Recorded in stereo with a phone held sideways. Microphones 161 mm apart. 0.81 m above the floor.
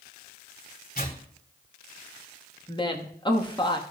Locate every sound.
0.9 s tearing paper: 65° left (ahead or behind), 2.5 m
2.7 s a woman speaking: 30° left (ahead or behind), 1.2 m